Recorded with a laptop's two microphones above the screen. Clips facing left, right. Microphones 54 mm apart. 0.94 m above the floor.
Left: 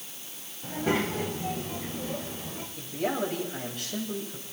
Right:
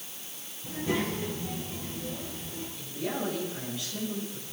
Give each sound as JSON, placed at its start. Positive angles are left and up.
{"t": 0.6, "sound": "a child speaking", "side_deg": 70, "distance_m": 3.0}
{"t": 2.8, "sound": "a man speaking", "side_deg": 70, "distance_m": 5.0}